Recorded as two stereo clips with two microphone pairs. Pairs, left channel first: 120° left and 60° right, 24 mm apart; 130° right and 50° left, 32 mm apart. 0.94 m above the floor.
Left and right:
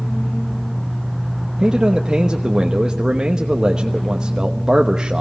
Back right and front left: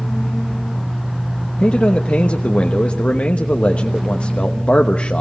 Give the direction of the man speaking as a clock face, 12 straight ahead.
3 o'clock.